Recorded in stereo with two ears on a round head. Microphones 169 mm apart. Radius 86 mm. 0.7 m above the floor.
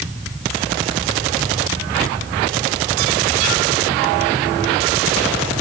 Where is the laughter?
No laughter in this recording.